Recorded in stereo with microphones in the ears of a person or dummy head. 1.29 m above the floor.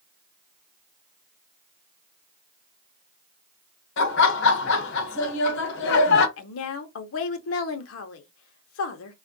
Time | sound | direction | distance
4.0 | laughter | 70° left (ahead or behind) | 1.2 m
6.4 | a woman speaking | 85° left | 0.8 m